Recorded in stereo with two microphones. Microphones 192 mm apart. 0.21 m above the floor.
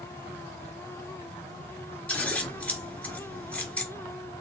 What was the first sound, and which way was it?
Scissors, 5° left (ahead or behind).